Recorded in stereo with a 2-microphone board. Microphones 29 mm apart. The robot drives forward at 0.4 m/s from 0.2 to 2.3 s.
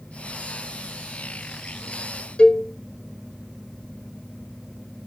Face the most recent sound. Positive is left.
turn(degrees=40)  # may be behind; listen again after turning